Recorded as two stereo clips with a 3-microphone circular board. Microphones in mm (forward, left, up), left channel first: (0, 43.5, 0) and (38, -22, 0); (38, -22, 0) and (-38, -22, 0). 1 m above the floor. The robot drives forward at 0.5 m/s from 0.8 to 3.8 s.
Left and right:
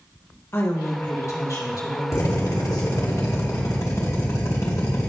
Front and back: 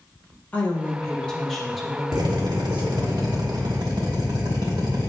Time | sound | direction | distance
0.5 | a woman speaking | 70° left | 1.5 m
2.1 | a drill | 160° left | 1.6 m